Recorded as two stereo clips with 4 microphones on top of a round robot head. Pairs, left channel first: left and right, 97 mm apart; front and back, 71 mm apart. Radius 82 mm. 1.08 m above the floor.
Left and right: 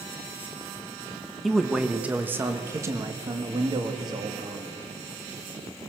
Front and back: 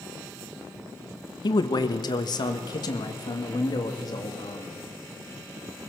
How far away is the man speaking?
About 1.5 m.